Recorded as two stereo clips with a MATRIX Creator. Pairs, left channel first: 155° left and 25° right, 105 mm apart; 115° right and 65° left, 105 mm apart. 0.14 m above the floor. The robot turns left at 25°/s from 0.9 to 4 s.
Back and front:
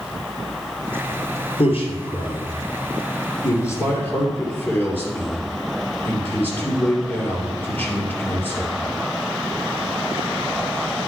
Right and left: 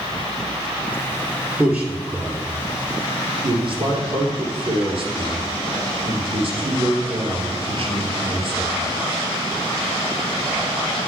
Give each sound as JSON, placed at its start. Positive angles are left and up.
{"t": 1.6, "sound": "a man speaking", "azimuth_deg": 150, "distance_m": 2.5}